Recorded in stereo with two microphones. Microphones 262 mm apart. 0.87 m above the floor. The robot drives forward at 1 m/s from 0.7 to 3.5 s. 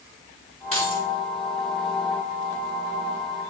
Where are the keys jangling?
55° right (ahead or behind), 6 m; by 1.0 s 60° right (ahead or behind), 5.5 m.